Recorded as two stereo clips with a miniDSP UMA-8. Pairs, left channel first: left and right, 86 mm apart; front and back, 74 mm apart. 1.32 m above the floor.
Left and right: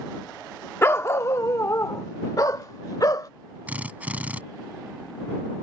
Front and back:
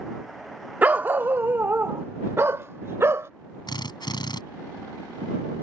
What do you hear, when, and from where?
0.8 s a dog barking: 125° left; by 3.3 s 130° left
3.7 s a drill: 20° right